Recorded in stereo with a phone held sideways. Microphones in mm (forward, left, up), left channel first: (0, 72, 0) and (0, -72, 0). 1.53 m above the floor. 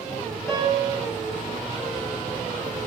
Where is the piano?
10° left (ahead or behind), 8.5 m.